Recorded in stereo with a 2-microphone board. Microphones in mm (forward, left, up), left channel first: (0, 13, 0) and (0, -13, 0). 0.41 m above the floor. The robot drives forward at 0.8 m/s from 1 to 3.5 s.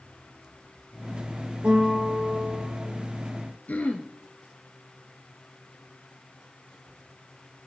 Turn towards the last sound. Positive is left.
turn(degrees=70)  # may be behind; listen again after turning